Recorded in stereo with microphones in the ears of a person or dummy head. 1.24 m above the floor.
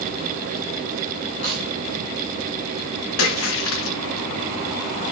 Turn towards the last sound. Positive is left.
turn(degrees=70)  # may be behind; listen again after turning